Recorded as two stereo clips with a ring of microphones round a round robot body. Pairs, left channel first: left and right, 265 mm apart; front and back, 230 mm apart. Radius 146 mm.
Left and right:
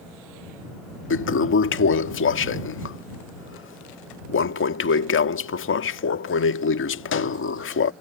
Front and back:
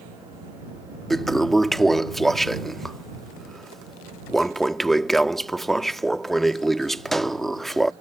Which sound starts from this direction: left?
A toilet flushing, at 1.1 s.